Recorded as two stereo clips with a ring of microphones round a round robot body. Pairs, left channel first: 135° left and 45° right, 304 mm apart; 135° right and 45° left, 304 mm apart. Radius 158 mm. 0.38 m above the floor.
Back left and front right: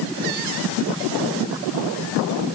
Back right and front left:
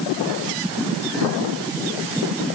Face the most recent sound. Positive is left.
No sound to turn to.